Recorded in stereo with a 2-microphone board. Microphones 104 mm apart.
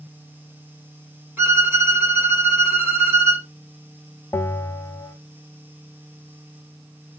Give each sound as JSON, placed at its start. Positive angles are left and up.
{"t": 1.4, "sound": "a violin", "side_deg": -20, "distance_m": 0.9}
{"t": 4.3, "sound": "a bell", "side_deg": 25, "distance_m": 0.6}